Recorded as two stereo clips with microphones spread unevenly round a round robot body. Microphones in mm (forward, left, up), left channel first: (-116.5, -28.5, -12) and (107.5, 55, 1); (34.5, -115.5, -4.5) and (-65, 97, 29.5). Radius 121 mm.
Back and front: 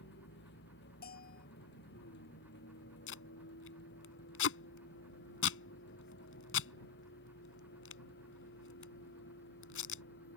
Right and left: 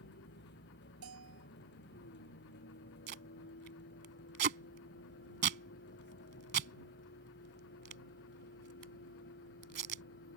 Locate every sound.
0.0 s a vehicle: 110° right
1.0 s a bell: 145° left
3.1 s tape being pulled: 165° left